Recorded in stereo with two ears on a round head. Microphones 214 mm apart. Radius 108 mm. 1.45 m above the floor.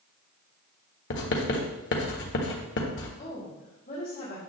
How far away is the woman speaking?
About 3 m.